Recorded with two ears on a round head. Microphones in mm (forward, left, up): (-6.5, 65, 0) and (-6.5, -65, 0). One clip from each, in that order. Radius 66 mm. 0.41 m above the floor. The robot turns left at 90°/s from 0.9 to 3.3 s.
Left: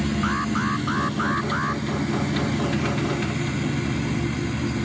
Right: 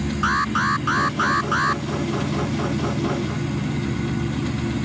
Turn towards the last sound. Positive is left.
turn(degrees=105)